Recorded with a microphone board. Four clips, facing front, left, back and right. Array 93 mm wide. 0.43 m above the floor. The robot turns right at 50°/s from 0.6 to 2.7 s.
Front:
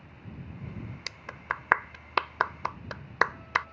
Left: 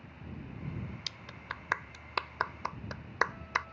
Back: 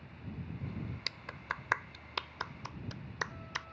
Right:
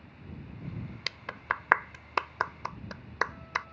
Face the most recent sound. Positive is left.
turn(degrees=0)